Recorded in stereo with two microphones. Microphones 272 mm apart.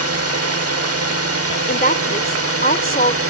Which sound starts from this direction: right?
A drone, at 0.0 s.